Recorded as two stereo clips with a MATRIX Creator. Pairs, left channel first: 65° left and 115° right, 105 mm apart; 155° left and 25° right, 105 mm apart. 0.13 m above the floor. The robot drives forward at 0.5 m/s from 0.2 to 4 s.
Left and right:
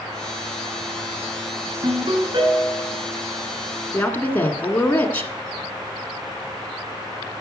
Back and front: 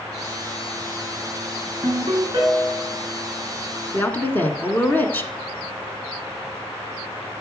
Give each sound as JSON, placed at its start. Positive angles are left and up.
{"t": 1.8, "sound": "a ringtone", "azimuth_deg": -65, "distance_m": 5.5}
{"t": 3.9, "sound": "a woman speaking", "azimuth_deg": 115, "distance_m": 1.4}